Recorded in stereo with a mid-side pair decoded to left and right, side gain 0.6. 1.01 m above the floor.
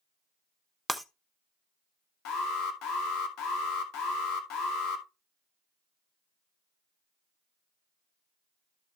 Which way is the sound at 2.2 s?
70° left.